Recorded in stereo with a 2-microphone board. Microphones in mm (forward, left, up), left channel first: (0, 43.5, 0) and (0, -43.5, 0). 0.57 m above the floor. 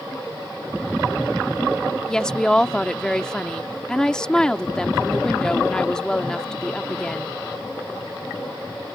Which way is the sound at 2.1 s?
10° left (ahead or behind).